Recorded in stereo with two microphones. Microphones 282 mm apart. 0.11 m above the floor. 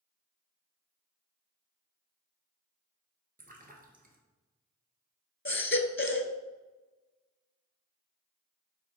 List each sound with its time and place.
3.4 s a splash: 30° right (ahead or behind), 1.4 m
5.5 s a baby crying: 45° left (ahead or behind), 0.6 m